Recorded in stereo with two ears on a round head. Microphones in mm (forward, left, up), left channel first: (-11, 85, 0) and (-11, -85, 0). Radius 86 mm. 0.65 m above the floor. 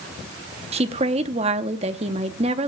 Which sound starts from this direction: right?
A woman speaking, at 0.7 s.